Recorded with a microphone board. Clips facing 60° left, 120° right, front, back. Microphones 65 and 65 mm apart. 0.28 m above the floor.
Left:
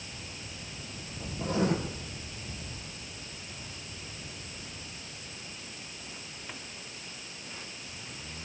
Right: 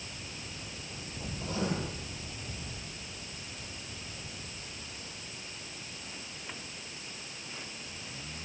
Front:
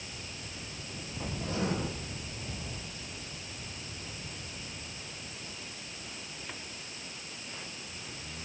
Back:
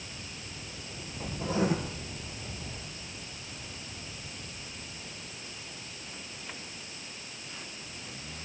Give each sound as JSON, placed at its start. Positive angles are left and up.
{"t": 1.4, "sound": "writing", "azimuth_deg": 100, "distance_m": 6.0}